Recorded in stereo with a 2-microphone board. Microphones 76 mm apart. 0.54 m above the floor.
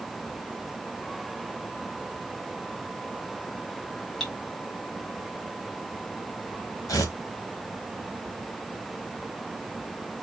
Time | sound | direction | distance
4.2 | cutlery clinking | 5° left (ahead or behind) | 1.6 m
6.9 | tearing paper | 50° left (ahead or behind) | 1.3 m